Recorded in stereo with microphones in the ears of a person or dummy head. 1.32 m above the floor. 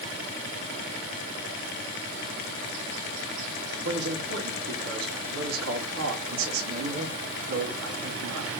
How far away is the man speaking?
About 2.5 m.